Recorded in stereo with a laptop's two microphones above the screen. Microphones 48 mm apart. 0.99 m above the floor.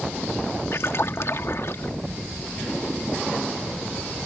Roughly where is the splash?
Left.